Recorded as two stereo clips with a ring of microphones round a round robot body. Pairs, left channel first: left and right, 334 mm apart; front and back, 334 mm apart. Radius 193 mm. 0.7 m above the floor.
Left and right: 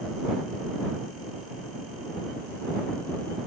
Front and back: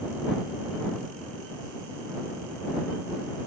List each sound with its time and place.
Only background noise.